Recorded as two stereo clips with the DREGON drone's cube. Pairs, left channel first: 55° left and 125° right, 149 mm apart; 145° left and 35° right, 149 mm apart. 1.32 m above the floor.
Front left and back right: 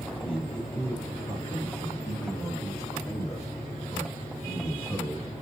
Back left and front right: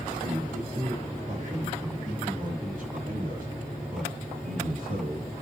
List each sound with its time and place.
0.2 s a man speaking: straight ahead, 8.5 m; by 5.3 s 25° right, 6 m